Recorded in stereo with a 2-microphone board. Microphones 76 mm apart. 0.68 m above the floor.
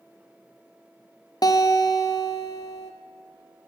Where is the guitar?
55° left (ahead or behind), 0.9 m.